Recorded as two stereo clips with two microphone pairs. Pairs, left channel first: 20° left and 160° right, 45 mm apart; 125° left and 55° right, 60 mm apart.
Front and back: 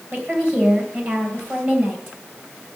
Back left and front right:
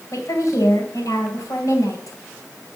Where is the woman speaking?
150° left, 3.5 m.